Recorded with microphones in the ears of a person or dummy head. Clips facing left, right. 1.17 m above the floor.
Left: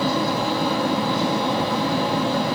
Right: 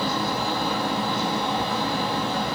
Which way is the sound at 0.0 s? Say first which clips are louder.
Left 4 dB; 55° left (ahead or behind).